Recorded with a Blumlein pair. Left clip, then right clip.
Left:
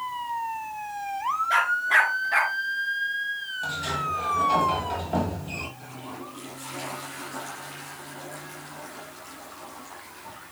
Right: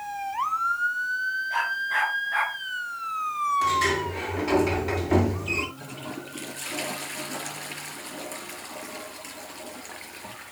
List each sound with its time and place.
1.5 s a dog barking: 30° left, 6 m; by 2.5 s 20° left, 5.5 m
3.6 s a sliding door: 45° right, 8 m
5.8 s a toilet flushing: 55° right, 5 m